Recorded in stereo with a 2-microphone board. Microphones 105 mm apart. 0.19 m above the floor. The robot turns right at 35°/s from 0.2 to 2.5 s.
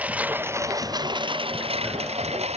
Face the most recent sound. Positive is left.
turn(degrees=-85)